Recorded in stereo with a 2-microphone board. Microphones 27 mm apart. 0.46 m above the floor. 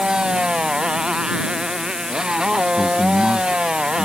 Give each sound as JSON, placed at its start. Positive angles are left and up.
{"t": 0.0, "sound": "a motorcycle", "side_deg": -30}
{"t": 2.8, "sound": "a man speaking", "side_deg": 55}